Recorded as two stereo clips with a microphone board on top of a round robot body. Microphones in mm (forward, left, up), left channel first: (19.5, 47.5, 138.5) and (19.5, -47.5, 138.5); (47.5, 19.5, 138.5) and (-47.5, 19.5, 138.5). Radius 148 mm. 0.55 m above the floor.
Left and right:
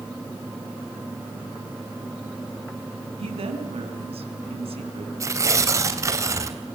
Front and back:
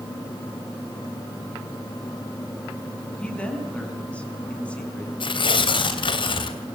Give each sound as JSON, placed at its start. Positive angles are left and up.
{"t": 3.2, "sound": "a woman speaking", "azimuth_deg": -80, "distance_m": 5.5}
{"t": 5.2, "sound": "tearing paper", "azimuth_deg": -30, "distance_m": 3.0}